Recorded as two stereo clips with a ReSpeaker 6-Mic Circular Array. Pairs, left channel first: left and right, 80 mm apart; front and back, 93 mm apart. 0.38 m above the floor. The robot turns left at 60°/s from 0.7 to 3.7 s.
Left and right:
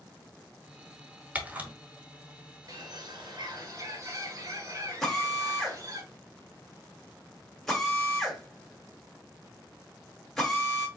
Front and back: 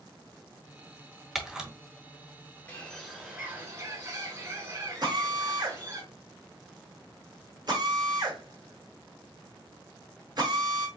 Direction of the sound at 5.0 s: 175° left.